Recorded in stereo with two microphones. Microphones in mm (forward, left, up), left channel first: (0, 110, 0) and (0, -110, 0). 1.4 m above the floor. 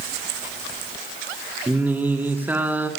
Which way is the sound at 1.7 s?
10° right (ahead or behind).